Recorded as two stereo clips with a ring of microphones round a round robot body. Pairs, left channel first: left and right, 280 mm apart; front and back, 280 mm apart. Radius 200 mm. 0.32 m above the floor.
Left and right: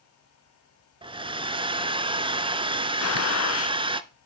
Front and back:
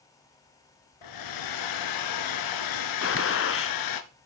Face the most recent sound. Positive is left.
turn(degrees=50)